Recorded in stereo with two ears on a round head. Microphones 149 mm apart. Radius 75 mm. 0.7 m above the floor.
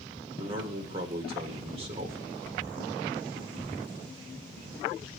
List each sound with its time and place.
0.4 s a man speaking: 35° right (ahead or behind), 2 m